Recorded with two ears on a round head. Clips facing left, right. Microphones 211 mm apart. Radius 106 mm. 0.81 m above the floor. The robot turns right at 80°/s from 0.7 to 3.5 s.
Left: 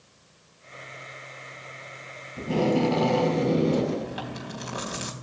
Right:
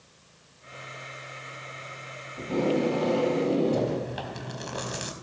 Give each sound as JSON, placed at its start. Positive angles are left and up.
{"t": 2.4, "sound": "tape being pulled", "azimuth_deg": 45, "distance_m": 5.0}
{"t": 3.7, "sound": "chewing", "side_deg": 0, "distance_m": 3.5}